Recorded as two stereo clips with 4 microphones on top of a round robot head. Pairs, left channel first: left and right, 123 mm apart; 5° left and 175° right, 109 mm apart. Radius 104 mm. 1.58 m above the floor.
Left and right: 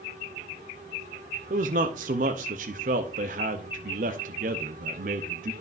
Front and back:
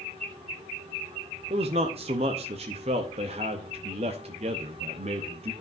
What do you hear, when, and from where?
1.5 s a man speaking: 125° right, 0.6 m